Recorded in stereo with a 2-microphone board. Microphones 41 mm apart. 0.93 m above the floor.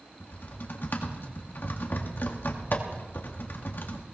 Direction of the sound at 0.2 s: 60° left (ahead or behind).